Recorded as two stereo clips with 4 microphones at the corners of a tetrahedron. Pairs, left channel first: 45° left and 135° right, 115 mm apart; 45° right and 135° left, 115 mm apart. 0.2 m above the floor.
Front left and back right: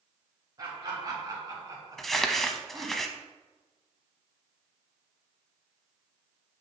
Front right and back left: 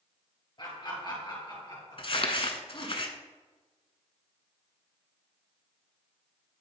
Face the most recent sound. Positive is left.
turn(degrees=-40)